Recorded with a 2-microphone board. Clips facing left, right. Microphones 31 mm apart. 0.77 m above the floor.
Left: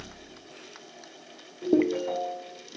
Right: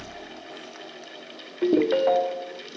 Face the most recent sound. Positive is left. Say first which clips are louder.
# right 4 dB
turn(degrees=-70)  # may be behind; listen again after turning